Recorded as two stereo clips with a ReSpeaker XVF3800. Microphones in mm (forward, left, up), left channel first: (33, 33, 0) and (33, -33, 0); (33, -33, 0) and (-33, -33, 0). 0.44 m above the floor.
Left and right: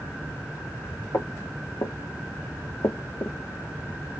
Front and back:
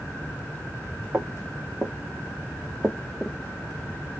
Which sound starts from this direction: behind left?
Footsteps, at 1.1 s.